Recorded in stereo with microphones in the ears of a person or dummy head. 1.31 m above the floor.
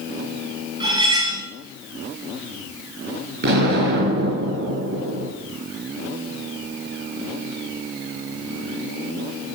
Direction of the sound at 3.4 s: 60° right (ahead or behind).